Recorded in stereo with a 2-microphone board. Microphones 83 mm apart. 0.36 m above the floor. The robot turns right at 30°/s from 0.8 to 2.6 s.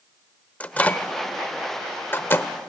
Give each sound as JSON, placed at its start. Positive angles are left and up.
{"t": 0.6, "sound": "a microwave", "side_deg": 20, "distance_m": 0.7}